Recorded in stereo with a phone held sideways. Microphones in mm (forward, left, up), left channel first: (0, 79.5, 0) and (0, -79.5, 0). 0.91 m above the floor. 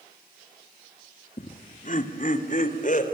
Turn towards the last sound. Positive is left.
turn(degrees=55)  # may be behind; listen again after turning